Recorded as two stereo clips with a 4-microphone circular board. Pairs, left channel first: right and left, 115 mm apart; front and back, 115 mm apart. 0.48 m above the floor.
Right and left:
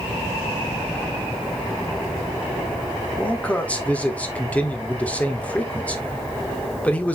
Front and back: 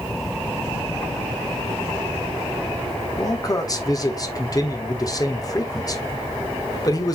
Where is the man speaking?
20° right, 1.4 m.